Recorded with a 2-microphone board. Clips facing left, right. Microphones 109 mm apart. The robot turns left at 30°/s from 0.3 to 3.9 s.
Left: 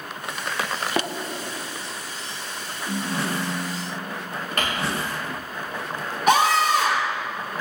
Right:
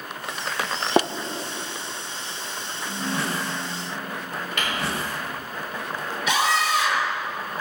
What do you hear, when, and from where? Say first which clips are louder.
1.0 s tapping: right 6 dB; 30° right (ahead or behind), 0.7 m
2.9 s a ringtone: left 1 dB; 20° left, 2.5 m; by 4.3 s 10° right, 2.5 m
4.6 s crumpling: left 3 dB; 45° left (ahead or behind), 6 m
6.3 s a scream: left 5 dB; 50° left (ahead or behind), 4.5 m